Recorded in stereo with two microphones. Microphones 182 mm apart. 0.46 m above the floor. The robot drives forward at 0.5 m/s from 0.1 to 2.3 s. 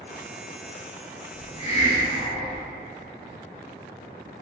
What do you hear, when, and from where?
1.3 s a hiss: 30° left (ahead or behind), 1.7 m; by 2.6 s 40° left (ahead or behind), 1.3 m